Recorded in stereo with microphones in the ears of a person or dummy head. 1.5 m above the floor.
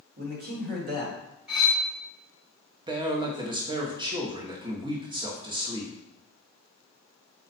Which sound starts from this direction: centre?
Cutlery clinking, at 1.5 s.